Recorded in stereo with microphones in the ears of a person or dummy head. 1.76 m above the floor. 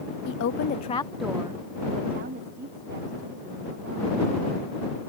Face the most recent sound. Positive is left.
turn(degrees=-55)  # may be behind; listen again after turning